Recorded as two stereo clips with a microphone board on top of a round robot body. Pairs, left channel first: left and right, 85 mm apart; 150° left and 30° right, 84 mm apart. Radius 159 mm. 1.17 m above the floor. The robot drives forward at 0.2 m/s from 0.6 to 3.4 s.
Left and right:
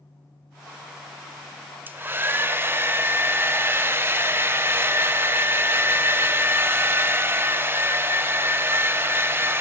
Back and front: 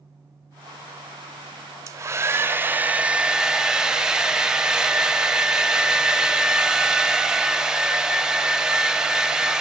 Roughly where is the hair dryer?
Ahead right.